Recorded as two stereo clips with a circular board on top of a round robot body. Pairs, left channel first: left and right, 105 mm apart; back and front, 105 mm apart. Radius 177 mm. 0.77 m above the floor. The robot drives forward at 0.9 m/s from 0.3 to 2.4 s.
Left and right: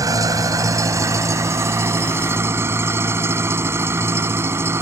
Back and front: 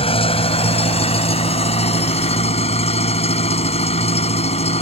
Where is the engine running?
150° right; by 4.8 s 160° right.